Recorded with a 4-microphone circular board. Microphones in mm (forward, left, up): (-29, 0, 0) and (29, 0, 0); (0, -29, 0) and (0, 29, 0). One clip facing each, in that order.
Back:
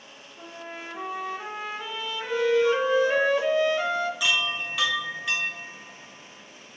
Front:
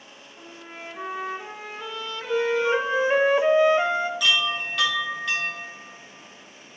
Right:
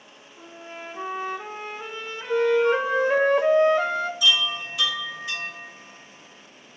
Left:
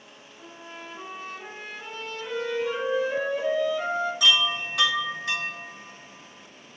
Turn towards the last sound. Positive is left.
turn(degrees=95)